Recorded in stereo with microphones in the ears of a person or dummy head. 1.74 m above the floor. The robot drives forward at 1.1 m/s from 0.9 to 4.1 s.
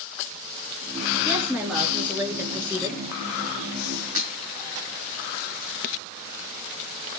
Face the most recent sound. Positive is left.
turn(degrees=-45)  # may be behind; listen again after turning